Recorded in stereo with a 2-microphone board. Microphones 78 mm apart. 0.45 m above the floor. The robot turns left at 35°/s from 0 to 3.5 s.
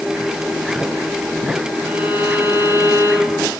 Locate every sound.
1.8 s a violin: 20° right, 6 m; by 3.5 s 75° right, 6 m